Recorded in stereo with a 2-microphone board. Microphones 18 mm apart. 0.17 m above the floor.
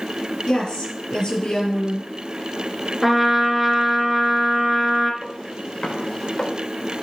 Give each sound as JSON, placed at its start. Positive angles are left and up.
{"t": 0.5, "sound": "a woman speaking", "side_deg": 50, "distance_m": 4.0}
{"t": 3.0, "sound": "a trumpet", "side_deg": -5, "distance_m": 1.9}
{"t": 5.2, "sound": "footsteps", "side_deg": 65, "distance_m": 4.0}